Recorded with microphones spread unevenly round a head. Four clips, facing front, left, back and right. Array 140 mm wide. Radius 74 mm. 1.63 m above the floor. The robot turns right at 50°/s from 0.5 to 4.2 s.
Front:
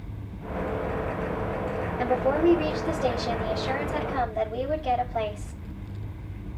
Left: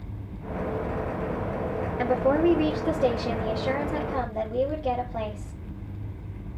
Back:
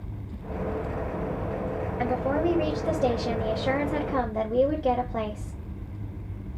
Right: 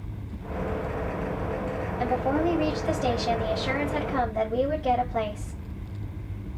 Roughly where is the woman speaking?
Ahead left.